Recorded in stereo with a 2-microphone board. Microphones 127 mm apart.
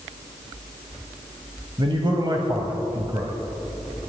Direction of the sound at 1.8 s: 40° right (ahead or behind).